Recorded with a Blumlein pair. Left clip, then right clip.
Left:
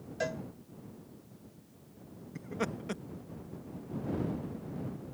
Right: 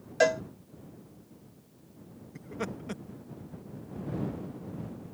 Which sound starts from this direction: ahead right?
A cowbell, at 0.2 s.